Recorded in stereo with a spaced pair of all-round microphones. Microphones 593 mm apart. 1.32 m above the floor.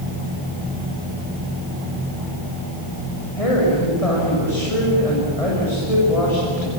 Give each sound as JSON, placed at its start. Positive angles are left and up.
{"t": 3.4, "sound": "a woman speaking", "side_deg": 90, "distance_m": 7.5}